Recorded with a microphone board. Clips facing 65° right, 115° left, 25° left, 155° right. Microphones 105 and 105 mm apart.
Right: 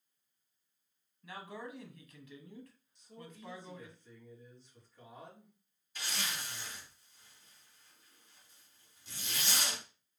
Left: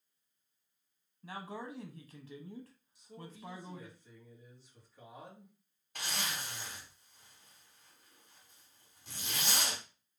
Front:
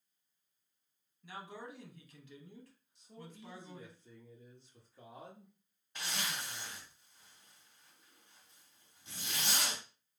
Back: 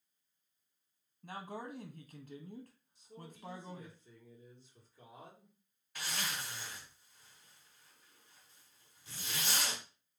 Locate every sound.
1.2 s a man speaking: 160° left, 0.7 m
3.0 s a man speaking: 30° left, 1.6 m
6.0 s a zipper: 85° left, 2.0 m